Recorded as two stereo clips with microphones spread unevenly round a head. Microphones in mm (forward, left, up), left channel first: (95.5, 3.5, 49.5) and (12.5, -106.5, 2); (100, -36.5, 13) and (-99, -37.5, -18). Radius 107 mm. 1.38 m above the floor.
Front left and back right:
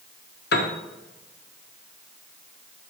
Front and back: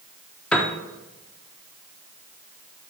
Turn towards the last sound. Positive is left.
turn(degrees=85)